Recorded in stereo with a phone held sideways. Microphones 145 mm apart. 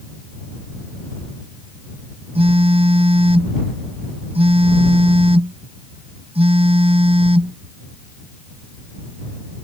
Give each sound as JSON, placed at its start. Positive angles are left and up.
{"t": 2.4, "sound": "a phone buzzing", "side_deg": -45}